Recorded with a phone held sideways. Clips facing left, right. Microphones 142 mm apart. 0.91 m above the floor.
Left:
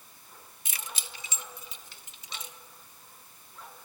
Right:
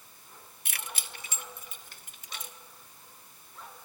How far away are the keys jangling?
About 1.2 m.